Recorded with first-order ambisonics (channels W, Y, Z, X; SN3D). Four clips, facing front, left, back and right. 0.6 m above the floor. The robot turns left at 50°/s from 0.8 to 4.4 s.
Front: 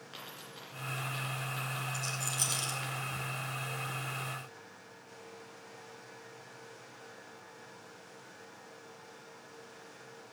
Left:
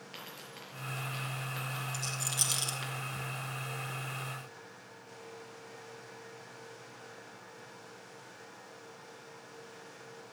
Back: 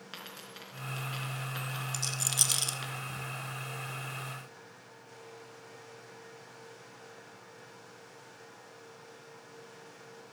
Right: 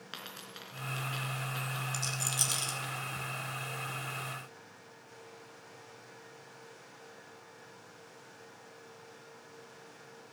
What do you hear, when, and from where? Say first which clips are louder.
0.1 s a dropped coin: right 3 dB, back 2 dB; 115° right, 3.5 m; by 2.9 s 140° left, 3.5 m
1.9 s a rattle: right 1 dB, back 7 dB; 155° right, 1.3 m; by 2.8 s 160° left, 1.3 m